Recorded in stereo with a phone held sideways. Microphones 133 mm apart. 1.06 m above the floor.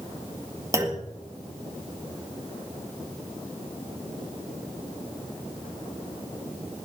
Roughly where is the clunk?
Right.